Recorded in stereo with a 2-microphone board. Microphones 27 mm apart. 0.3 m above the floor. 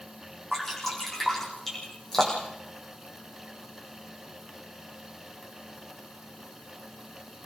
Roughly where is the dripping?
Centre.